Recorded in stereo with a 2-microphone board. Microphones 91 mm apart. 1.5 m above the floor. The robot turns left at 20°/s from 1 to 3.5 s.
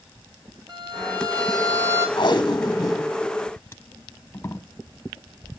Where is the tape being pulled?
50° left (ahead or behind), 1.2 m; by 4.7 s 25° left (ahead or behind), 1.2 m.